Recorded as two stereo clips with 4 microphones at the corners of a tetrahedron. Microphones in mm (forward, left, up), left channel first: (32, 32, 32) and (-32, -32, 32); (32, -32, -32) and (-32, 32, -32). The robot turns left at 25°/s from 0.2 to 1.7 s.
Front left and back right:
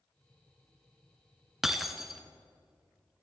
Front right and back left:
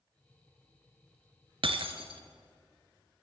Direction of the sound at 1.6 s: 140° left.